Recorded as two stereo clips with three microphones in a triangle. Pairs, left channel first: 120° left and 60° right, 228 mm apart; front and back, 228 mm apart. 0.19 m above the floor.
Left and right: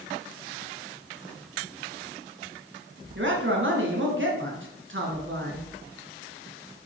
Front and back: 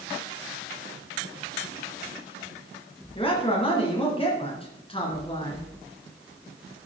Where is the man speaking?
60° right, 2.5 m.